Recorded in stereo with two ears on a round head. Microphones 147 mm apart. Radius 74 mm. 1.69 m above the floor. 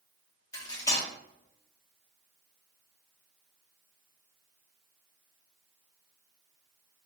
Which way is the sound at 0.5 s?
20° left (ahead or behind).